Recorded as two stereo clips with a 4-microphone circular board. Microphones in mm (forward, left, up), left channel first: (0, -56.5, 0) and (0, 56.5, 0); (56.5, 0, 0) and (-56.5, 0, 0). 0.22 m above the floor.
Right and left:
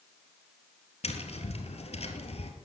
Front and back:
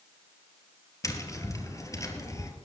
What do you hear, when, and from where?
1.0 s tapping: 60° right, 1.7 m